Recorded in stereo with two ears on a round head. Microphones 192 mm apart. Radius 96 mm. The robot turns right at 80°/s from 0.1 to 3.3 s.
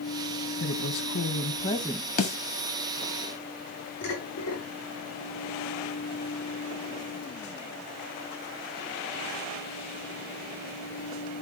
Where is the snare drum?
40° left (ahead or behind), 1.8 m; by 2.4 s 25° left (ahead or behind), 1.8 m.